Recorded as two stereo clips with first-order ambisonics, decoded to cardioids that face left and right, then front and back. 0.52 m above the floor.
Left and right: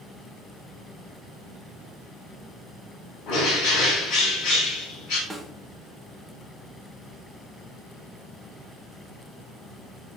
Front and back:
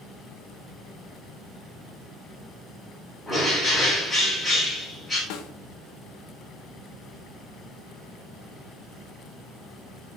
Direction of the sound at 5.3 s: 5° right.